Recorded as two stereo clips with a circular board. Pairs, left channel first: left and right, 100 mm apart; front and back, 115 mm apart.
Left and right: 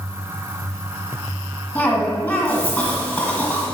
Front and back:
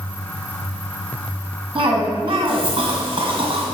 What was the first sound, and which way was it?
A cough, 140° left.